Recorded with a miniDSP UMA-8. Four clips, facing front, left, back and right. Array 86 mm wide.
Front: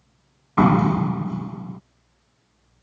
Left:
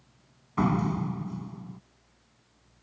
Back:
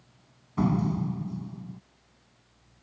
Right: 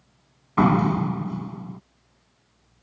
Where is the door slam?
25° right.